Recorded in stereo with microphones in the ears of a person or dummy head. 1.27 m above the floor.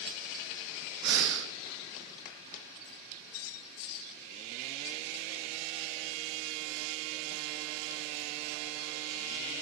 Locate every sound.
1.0 s breathing: 75° right (ahead or behind), 1.4 m